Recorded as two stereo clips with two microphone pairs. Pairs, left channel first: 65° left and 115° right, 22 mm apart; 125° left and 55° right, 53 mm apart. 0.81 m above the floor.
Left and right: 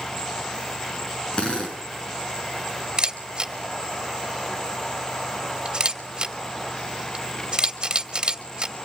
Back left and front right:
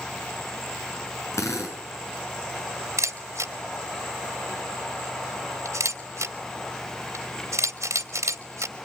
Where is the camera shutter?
70° right, 2.5 m.